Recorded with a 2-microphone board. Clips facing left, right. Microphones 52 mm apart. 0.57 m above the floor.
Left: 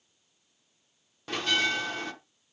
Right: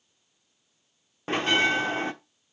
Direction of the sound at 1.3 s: 30° right (ahead or behind).